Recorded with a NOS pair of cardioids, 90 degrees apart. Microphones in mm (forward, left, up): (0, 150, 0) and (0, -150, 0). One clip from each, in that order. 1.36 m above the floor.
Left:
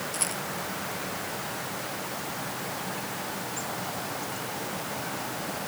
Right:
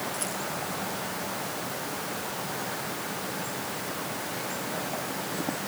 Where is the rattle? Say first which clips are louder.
Left 1 dB; 50° left.